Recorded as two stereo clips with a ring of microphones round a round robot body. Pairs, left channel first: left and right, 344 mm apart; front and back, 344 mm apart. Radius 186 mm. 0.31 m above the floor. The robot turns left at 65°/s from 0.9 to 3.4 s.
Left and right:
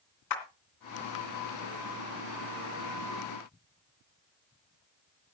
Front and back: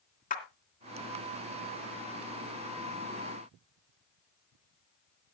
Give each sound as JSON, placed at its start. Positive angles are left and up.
{"t": 0.3, "sound": "a clap", "azimuth_deg": 65, "distance_m": 2.5}